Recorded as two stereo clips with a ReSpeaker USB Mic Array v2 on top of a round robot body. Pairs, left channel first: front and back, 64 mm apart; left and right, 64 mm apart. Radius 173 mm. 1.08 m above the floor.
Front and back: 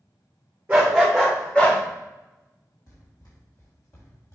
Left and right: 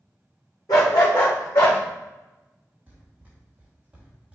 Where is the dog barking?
115° left, 0.9 m; by 1.8 s 60° left, 1.8 m.